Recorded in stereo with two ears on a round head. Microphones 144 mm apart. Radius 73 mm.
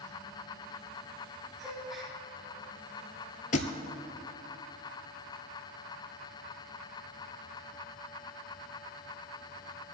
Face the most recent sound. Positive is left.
turn(degrees=50)  # may be behind; listen again after turning